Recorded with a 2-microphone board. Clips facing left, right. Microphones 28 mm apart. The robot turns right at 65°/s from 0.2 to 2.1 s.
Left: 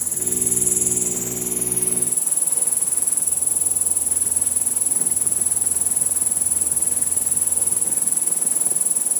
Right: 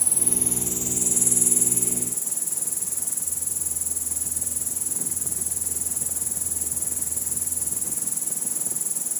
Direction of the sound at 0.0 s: 55° right.